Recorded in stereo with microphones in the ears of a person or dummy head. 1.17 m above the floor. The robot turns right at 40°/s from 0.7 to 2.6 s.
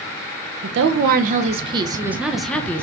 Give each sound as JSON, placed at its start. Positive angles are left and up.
{"t": 0.6, "sound": "a woman speaking", "azimuth_deg": -70, "distance_m": 0.6}